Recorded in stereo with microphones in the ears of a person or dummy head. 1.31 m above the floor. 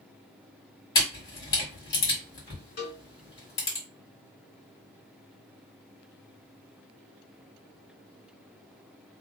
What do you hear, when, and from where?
0.9 s a camera shutter: 20° left (ahead or behind), 1.5 m
2.8 s a cowbell: 50° left (ahead or behind), 1.8 m